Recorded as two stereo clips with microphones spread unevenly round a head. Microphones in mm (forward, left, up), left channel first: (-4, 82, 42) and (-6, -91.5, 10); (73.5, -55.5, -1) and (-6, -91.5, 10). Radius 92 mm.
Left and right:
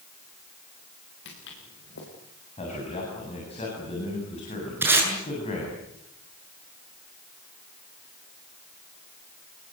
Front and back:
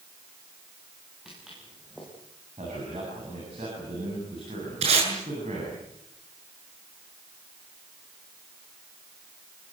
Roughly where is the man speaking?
Behind left.